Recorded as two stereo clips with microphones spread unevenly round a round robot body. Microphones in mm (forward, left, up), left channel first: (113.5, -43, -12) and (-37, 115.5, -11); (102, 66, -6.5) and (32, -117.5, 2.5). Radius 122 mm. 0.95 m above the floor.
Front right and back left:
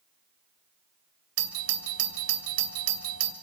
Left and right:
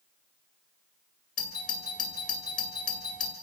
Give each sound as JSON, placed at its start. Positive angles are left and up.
{"t": 1.4, "sound": "a doorbell", "azimuth_deg": 130, "distance_m": 2.5}